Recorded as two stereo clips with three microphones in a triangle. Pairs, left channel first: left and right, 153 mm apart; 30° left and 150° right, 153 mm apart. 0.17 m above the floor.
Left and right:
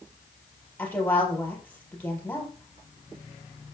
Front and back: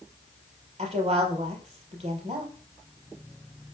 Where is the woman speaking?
170° left, 3.5 m.